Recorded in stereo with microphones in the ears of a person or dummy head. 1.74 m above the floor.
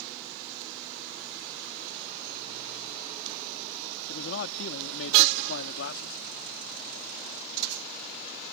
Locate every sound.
4.1 s a man speaking: 70° left (ahead or behind); by 6.2 s 80° left